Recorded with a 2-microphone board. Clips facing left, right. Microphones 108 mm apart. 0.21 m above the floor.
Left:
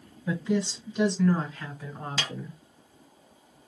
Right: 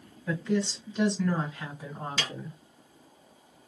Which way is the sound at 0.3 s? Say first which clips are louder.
Left 1 dB; 20° left (ahead or behind).